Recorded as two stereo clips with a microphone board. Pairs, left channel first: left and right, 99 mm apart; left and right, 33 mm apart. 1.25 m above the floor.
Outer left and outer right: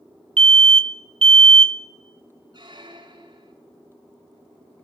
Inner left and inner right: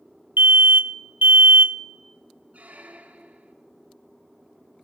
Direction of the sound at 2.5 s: 50° right (ahead or behind).